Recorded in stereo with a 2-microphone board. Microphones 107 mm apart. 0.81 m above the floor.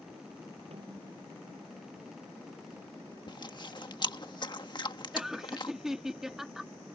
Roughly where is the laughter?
Centre.